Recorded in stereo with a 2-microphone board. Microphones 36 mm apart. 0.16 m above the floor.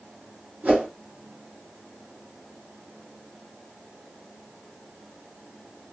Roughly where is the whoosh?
Right.